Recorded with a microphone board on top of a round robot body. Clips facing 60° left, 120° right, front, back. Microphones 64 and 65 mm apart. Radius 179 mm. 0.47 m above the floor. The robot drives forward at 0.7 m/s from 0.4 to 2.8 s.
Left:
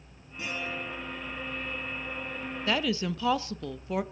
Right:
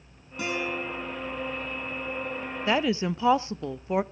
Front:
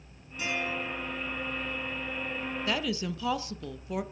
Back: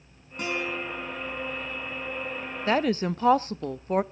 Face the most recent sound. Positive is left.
turn(degrees=-175)